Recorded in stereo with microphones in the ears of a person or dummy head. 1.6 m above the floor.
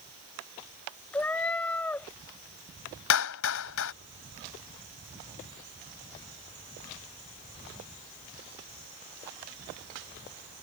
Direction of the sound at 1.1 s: 5° left (ahead or behind).